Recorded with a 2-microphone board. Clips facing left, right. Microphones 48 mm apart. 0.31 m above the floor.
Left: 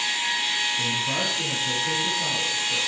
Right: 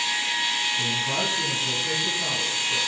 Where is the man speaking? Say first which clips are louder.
Even; 20° right (ahead or behind), 7 m.